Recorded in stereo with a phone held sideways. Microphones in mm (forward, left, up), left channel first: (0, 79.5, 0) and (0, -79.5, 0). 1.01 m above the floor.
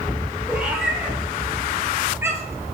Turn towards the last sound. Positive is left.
turn(degrees=-15)  # may be behind; listen again after turning